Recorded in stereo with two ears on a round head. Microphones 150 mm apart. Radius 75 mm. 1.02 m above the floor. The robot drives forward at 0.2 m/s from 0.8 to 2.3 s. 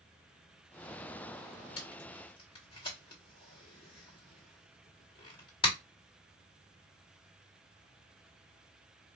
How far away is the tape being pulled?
About 1.6 m.